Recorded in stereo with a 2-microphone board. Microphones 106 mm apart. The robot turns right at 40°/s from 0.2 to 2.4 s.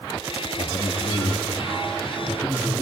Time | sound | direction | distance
0.6 | a man speaking | 105° left | 5.5 m